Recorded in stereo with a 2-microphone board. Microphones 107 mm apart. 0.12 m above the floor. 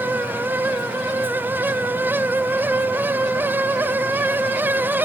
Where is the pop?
No pop in this recording.